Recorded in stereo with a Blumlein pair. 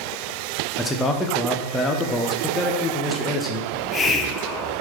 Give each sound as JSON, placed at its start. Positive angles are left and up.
{"t": 0.8, "sound": "a man speaking", "azimuth_deg": 15, "distance_m": 1.0}
{"t": 3.7, "sound": "a hiss", "azimuth_deg": 20, "distance_m": 0.8}